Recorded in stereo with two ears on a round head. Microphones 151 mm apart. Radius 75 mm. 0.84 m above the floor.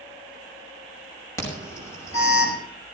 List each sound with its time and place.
1.4 s an alarm: 20° left (ahead or behind), 5.5 m